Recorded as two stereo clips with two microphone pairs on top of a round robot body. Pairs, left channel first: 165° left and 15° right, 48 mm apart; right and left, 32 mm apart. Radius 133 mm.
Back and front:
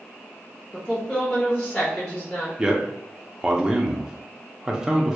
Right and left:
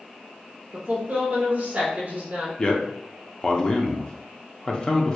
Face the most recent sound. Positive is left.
turn(degrees=-60)